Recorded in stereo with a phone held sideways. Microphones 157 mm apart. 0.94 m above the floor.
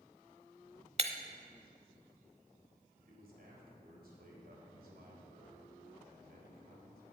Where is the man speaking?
75° right (ahead or behind), 3.5 m.